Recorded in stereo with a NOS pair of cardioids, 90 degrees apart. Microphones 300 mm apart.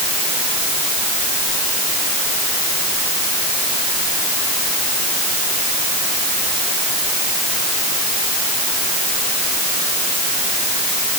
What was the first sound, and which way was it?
Only background noise.